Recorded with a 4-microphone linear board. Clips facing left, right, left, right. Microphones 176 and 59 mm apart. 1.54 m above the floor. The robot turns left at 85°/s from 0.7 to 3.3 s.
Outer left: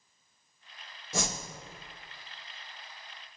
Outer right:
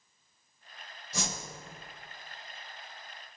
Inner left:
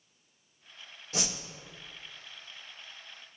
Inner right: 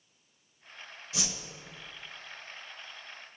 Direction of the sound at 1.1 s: 50° left (ahead or behind).